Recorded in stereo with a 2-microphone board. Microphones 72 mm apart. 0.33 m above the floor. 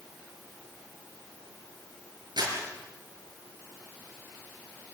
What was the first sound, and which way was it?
Crumpling, 75° right (ahead or behind).